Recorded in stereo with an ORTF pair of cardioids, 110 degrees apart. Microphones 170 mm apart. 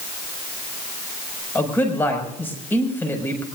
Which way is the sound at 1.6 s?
10° left.